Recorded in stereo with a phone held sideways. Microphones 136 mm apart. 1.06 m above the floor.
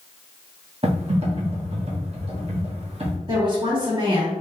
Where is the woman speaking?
35° right (ahead or behind), 1.9 m.